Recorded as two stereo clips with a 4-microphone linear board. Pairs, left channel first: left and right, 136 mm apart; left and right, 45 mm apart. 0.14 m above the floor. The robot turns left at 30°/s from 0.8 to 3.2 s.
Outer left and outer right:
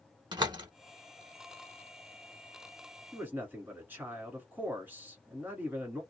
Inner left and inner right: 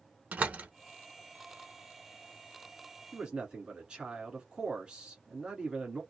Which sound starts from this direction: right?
A door slam, at 0.3 s.